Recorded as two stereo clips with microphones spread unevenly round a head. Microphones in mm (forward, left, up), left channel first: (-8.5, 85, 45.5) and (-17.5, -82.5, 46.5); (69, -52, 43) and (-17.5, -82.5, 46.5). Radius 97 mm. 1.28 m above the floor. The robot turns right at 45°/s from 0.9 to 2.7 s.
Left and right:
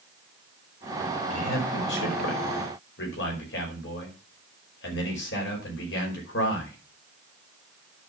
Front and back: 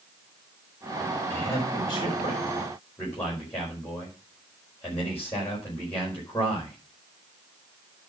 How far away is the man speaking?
About 5 m.